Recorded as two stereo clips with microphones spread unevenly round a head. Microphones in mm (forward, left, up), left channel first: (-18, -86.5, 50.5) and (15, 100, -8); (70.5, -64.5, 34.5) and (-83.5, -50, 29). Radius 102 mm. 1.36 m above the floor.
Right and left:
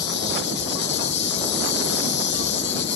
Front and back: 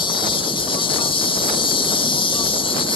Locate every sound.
0.0 s an insect: 60° right